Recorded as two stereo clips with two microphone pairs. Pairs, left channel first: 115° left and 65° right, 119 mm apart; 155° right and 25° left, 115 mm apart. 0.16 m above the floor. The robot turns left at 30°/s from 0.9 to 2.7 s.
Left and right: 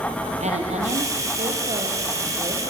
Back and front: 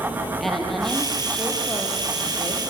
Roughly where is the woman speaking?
Ahead right.